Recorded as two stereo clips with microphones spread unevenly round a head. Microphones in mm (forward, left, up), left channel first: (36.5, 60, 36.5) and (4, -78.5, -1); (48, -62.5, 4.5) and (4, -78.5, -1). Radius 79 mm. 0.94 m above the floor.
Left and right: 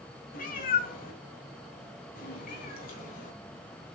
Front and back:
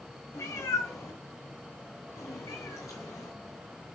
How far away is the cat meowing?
About 1.7 m.